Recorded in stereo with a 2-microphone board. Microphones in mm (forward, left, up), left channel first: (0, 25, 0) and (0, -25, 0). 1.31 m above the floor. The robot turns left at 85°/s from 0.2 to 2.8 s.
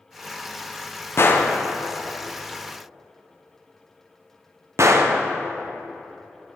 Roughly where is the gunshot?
Left.